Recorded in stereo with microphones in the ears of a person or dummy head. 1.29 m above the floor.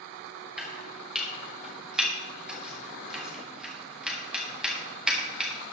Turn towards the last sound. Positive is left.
turn(degrees=-10)  # may be behind; listen again after turning